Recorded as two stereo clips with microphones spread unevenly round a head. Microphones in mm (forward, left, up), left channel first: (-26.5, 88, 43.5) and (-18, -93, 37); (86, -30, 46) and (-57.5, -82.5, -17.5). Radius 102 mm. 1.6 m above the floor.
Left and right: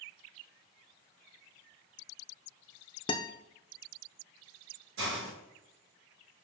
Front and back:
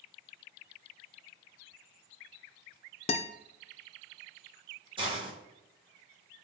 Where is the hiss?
95° right, 3 m.